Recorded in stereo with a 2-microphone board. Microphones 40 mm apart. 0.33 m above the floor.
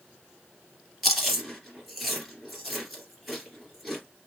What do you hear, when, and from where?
1.0 s chewing: centre (ahead or behind), 2.5 m